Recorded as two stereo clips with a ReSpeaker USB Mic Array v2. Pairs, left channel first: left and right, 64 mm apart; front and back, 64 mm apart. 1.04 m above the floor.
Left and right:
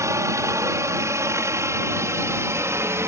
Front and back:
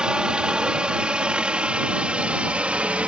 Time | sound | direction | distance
0.0 | a helicopter | 105° right | ?